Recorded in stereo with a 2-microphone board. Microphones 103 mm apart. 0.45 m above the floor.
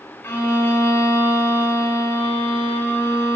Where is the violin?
15° left (ahead or behind), 5 m.